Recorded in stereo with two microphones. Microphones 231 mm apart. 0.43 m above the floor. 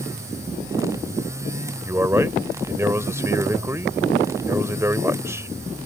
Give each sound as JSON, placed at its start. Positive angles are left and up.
{"t": 1.9, "sound": "a man speaking", "side_deg": -10}